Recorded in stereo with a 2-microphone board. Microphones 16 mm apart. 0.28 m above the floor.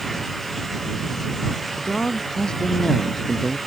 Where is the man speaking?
60° left (ahead or behind).